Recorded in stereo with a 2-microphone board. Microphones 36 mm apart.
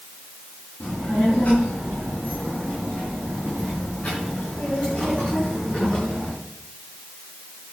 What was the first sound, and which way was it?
A child speaking, 40° left (ahead or behind).